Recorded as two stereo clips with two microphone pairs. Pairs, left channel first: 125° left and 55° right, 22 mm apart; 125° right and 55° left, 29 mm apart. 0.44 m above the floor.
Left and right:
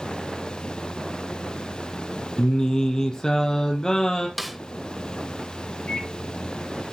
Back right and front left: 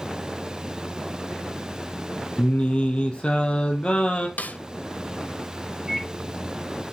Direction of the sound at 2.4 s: Straight behind.